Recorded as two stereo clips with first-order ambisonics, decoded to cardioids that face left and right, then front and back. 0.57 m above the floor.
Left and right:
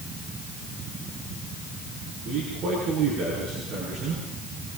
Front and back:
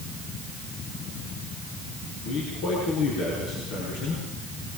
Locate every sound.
2.2 s a man speaking: 30° right, 8.5 m